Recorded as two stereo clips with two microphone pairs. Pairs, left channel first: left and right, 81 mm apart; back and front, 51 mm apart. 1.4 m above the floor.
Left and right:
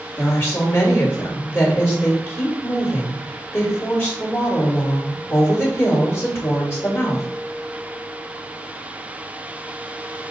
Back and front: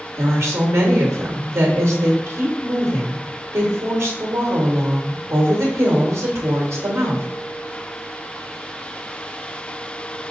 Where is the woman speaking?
30° left, 1.8 m.